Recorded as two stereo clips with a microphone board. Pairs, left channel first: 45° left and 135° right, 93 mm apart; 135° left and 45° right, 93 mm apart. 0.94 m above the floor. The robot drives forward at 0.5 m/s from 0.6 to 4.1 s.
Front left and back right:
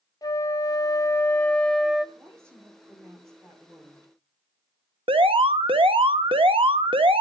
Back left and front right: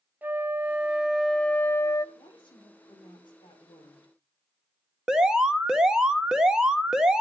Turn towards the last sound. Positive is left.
turn(degrees=-130)